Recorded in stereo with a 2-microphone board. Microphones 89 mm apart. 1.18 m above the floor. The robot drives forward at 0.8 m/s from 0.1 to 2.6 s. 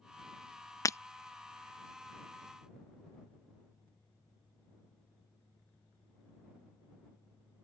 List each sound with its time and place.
0.8 s breaking glass: 35° left (ahead or behind); by 1.0 s 30° left (ahead or behind)